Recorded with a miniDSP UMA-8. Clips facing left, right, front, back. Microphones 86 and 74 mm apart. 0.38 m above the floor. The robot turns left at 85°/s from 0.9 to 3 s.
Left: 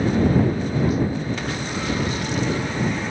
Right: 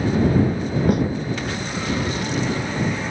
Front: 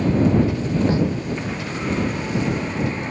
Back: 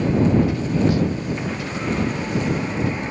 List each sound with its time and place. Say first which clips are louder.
0.9 s a snare drum: right 6 dB, front 2 dB; 60° right; by 1.0 s 75° right